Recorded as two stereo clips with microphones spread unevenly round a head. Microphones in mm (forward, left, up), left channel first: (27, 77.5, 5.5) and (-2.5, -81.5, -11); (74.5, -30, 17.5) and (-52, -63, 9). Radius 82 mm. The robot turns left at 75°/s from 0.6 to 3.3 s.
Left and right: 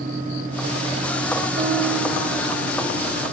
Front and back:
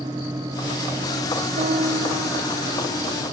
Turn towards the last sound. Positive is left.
turn(degrees=65)